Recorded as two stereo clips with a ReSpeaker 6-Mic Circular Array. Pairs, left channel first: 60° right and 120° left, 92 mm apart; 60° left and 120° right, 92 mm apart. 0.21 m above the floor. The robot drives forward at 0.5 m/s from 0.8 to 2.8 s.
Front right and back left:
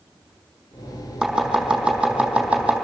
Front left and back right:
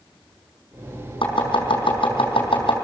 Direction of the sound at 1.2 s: 35° left.